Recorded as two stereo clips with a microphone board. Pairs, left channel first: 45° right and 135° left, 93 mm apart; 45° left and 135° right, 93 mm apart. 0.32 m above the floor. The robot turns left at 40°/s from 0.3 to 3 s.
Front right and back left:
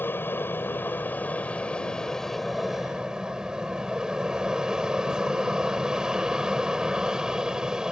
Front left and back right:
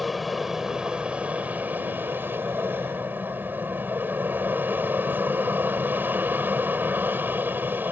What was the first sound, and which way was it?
An aircraft, 45° right.